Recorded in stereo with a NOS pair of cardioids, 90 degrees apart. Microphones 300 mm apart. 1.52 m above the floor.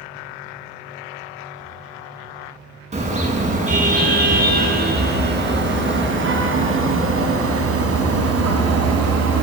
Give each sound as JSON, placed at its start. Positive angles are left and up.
{"t": 2.9, "sound": "a car horn", "azimuth_deg": -25, "distance_m": 7.5}